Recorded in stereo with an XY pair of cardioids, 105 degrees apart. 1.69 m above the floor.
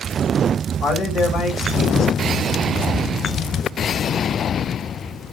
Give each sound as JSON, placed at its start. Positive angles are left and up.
{"t": 0.8, "sound": "a man speaking", "azimuth_deg": 60, "distance_m": 2.5}